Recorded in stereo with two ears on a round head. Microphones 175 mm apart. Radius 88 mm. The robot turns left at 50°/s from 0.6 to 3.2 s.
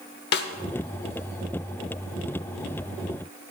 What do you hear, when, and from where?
0.3 s a snare drum: 55° left (ahead or behind), 0.9 m